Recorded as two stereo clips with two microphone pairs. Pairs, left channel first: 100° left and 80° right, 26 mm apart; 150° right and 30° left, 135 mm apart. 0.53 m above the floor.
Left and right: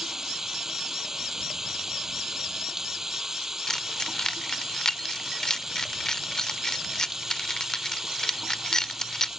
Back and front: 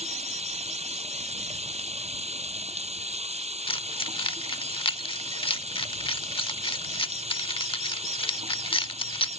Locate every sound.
0.0 s running water: 10° right
3.7 s keys jangling: 160° left